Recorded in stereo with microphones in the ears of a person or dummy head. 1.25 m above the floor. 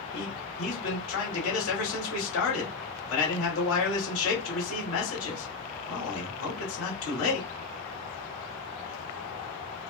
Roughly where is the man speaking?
Left.